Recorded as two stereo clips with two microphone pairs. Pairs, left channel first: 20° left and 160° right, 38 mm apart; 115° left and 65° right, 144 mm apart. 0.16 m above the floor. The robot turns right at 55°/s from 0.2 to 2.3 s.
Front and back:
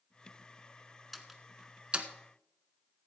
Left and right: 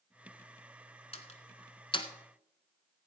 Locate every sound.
1.1 s a door slam: 105° left, 1.1 m; by 2.1 s 155° left, 1.1 m